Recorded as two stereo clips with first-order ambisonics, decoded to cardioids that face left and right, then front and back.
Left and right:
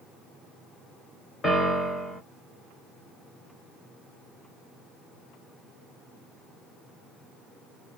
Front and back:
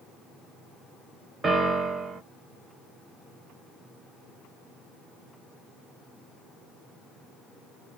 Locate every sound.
1.4 s a piano: 150° left, 0.8 m